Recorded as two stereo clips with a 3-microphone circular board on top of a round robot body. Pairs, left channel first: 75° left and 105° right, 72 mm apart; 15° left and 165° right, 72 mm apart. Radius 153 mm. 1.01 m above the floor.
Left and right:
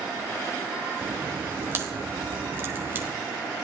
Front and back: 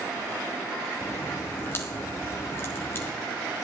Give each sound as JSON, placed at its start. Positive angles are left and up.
{"t": 1.0, "sound": "a crack", "azimuth_deg": -45, "distance_m": 1.4}